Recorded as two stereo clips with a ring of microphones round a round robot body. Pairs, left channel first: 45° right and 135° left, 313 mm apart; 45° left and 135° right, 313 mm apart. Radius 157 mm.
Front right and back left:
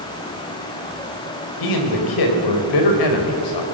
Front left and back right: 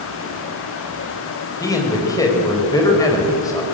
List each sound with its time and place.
1.6 s a man speaking: 35° right, 4.5 m